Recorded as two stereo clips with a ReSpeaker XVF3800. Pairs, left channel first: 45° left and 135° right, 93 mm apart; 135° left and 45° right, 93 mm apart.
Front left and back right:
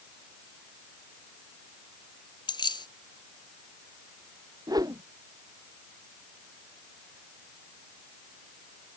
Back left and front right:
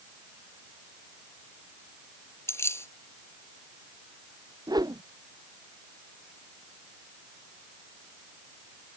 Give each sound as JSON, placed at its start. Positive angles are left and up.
{"t": 2.5, "sound": "keys jangling", "azimuth_deg": 75}
{"t": 4.7, "sound": "a whoosh", "azimuth_deg": -90}